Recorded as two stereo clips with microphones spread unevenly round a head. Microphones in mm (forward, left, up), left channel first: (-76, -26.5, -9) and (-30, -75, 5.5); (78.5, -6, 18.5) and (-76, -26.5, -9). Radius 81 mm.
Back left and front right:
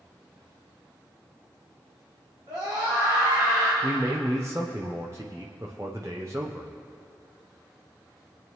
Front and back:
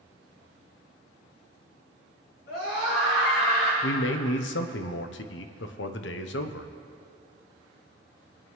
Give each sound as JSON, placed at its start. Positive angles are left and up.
{"t": 2.5, "sound": "a scream", "azimuth_deg": 0, "distance_m": 5.0}
{"t": 3.8, "sound": "a man speaking", "azimuth_deg": 30, "distance_m": 0.8}